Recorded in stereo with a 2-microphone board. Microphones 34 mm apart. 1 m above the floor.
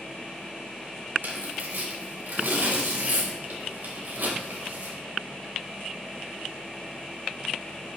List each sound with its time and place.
1.2 s tearing paper: 80° right, 3.5 m